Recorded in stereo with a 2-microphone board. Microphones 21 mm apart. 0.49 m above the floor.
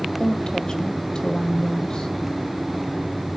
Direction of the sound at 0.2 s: 35° left (ahead or behind).